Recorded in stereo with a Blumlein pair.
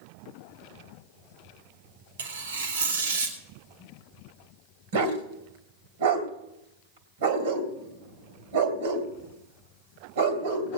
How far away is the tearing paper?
About 2.5 m.